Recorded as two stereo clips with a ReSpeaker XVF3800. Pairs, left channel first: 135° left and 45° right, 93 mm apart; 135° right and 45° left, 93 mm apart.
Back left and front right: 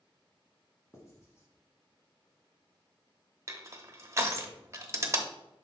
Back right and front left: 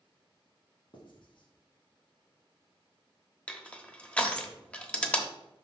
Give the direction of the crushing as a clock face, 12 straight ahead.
2 o'clock.